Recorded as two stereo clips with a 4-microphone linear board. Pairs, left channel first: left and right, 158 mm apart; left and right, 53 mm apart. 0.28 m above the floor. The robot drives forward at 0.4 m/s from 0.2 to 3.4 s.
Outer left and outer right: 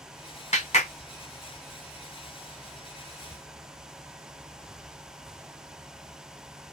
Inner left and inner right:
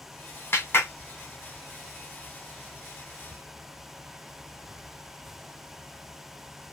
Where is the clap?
45° left (ahead or behind), 1.4 m.